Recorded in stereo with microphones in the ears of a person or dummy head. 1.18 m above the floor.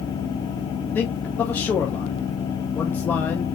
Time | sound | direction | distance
0.9 | a man speaking | 10° left (ahead or behind) | 0.6 m